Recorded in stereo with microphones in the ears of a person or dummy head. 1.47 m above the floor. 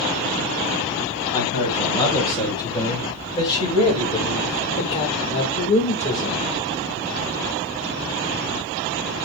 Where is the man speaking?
25° left (ahead or behind), 8.5 m; by 6.4 s 40° left (ahead or behind), 4.5 m.